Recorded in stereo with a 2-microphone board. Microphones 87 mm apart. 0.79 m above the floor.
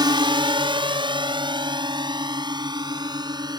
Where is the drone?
55° right (ahead or behind); by 3.6 s 50° right (ahead or behind).